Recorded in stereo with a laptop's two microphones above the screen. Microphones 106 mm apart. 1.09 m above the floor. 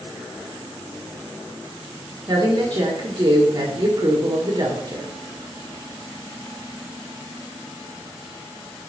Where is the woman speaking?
45° right (ahead or behind), 1.3 m.